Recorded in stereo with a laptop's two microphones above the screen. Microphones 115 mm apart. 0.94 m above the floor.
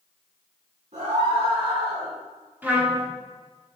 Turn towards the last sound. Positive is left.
turn(degrees=-15)  # may be behind; listen again after turning